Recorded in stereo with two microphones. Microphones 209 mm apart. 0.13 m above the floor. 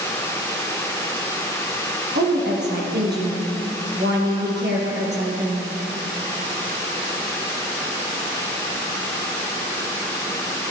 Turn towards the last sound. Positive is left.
turn(degrees=-55)  # may be behind; listen again after turning